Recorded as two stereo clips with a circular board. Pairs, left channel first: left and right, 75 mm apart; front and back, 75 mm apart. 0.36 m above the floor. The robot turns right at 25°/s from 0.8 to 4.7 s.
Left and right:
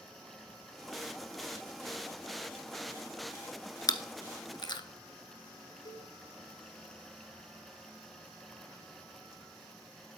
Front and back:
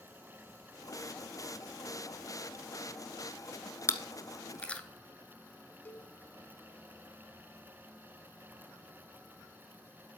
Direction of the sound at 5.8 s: 65° left.